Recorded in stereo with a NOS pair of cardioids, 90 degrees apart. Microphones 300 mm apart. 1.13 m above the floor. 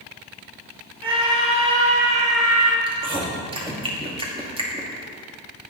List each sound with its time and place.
1.0 s a scream: 15° right, 4 m; by 2.8 s 25° right, 3 m
2.9 s chewing: 15° right, 2.5 m